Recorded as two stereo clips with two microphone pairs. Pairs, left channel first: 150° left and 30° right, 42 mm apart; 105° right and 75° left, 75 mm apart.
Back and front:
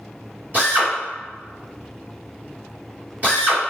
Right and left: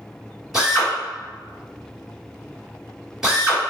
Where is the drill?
5° right, 1.3 m.